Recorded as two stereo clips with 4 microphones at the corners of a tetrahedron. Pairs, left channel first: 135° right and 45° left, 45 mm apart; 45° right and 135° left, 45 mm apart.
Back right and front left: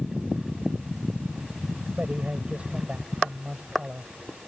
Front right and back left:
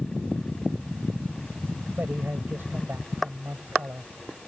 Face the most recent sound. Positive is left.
turn(degrees=105)